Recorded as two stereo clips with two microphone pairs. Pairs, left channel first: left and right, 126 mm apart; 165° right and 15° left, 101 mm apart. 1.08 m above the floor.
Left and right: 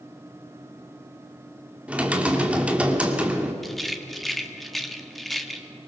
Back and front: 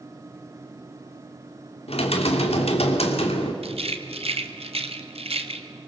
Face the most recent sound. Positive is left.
turn(degrees=0)